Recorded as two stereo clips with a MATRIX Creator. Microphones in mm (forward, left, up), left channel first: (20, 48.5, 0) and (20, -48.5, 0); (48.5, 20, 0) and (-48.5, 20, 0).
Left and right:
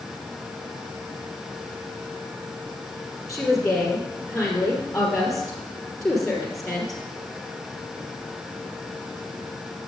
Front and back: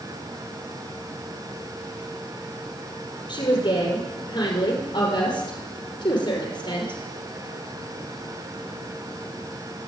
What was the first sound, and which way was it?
A woman speaking, 5° left.